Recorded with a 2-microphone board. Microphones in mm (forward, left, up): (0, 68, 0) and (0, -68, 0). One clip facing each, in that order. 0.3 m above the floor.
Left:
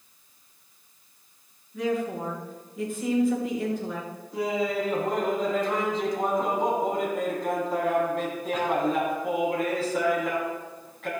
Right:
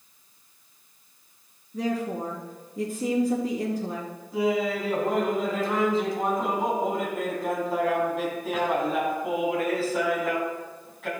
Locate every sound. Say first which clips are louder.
1.7 s a woman speaking: even; 35° right (ahead or behind), 4 m
4.3 s laughter: right 2 dB; 5° right (ahead or behind), 3 m